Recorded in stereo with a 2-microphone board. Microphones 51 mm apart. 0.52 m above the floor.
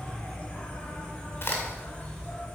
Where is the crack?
50° left (ahead or behind), 2.5 m.